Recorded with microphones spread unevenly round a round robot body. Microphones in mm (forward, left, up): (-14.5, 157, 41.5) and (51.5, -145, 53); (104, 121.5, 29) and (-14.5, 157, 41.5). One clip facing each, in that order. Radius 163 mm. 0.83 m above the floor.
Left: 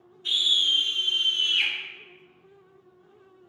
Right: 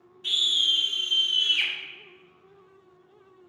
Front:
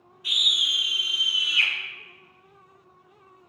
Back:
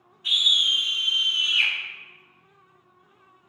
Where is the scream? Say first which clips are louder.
Even, back 2 dB; 80° right, 2 m; by 1.7 s 65° right, 1.5 m.